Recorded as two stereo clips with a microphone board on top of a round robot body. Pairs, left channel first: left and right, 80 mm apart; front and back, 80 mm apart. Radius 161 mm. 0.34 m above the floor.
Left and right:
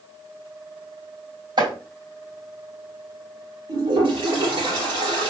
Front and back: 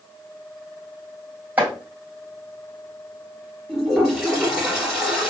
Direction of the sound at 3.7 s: 95° right.